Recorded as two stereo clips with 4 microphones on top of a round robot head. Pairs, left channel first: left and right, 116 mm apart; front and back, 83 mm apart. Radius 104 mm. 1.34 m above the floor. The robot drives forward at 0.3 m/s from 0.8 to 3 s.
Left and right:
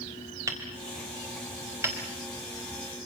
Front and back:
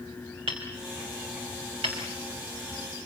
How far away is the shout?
I don't hear a shout.